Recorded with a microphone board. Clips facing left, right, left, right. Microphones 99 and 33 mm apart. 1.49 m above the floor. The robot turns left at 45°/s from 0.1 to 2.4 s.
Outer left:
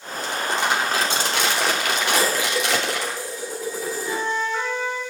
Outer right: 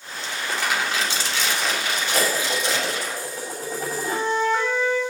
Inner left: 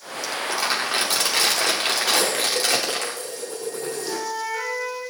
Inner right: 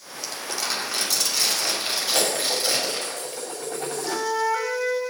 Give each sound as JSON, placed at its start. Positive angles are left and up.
{"t": 0.2, "sound": "crumpling", "azimuth_deg": 170, "distance_m": 3.0}
{"t": 2.1, "sound": "dishes clattering", "side_deg": -55, "distance_m": 6.5}
{"t": 4.0, "sound": "a flute", "side_deg": -35, "distance_m": 5.0}